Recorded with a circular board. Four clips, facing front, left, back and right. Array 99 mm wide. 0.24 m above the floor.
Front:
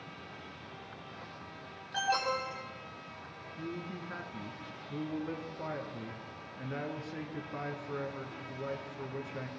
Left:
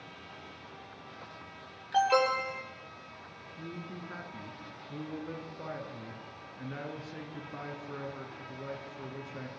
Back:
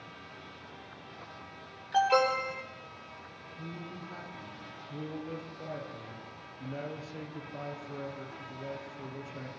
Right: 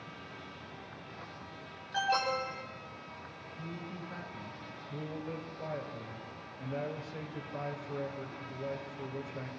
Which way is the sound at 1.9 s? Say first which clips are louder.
Left 5 dB, back 7 dB; 125° left.